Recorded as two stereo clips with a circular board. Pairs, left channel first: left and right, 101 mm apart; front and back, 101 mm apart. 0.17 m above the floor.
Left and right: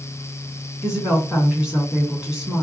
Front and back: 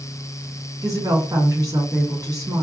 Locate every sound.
0.8 s a woman speaking: 165° right, 1.9 m